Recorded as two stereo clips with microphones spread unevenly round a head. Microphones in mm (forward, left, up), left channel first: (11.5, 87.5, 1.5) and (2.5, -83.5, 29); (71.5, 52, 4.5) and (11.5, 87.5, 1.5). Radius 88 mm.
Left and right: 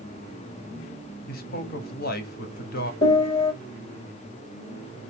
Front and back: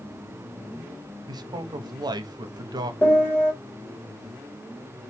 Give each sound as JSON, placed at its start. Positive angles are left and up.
{"t": 1.3, "sound": "a man speaking", "azimuth_deg": 130, "distance_m": 1.0}
{"t": 3.0, "sound": "a piano", "azimuth_deg": 25, "distance_m": 2.0}